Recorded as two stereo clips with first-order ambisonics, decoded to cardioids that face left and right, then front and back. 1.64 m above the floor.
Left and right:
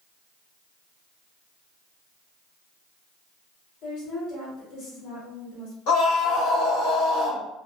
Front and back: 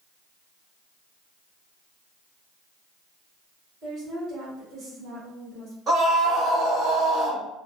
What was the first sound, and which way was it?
A woman speaking, 120° left.